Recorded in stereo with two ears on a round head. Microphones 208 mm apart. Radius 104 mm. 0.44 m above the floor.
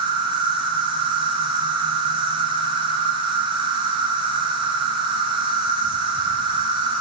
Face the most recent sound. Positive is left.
turn(degrees=-20)  # may be behind; listen again after turning